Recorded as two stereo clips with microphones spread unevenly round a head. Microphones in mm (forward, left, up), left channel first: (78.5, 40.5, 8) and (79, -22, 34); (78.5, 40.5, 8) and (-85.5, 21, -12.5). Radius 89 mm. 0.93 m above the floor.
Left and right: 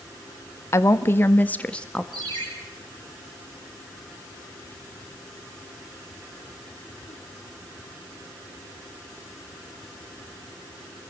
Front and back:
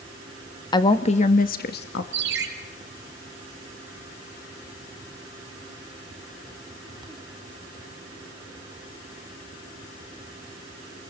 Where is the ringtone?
135° right, 4 m.